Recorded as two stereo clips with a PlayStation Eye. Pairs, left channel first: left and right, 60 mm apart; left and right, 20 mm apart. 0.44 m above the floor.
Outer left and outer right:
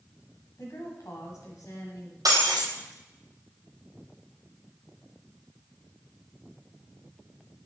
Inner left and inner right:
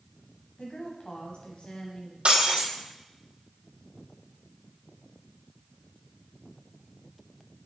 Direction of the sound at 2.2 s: 75° right (ahead or behind).